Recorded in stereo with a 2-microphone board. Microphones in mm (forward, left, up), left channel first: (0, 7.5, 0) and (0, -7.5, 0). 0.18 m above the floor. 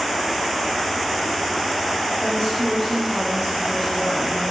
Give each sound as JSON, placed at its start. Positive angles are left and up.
{"t": 2.2, "sound": "a woman speaking", "side_deg": 10, "distance_m": 2.5}